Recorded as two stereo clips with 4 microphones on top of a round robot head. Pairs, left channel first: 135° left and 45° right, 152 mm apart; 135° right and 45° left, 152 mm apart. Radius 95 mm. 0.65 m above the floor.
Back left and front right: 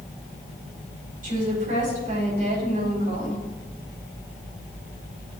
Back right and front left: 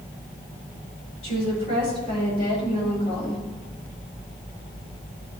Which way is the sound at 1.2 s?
85° right.